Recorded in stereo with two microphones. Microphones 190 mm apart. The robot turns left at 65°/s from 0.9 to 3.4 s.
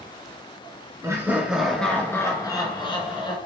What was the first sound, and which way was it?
Laughter, 15° right (ahead or behind).